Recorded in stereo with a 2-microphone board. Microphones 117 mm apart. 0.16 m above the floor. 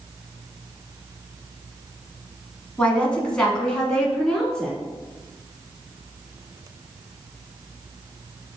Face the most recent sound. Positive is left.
turn(degrees=5)  # may be behind; listen again after turning